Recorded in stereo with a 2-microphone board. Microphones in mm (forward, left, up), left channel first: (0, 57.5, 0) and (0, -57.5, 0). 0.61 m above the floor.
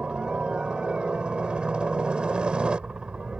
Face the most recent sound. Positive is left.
turn(degrees=-10)  # may be behind; listen again after turning